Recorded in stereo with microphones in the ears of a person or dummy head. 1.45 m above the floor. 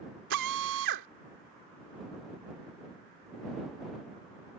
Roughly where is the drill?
Right.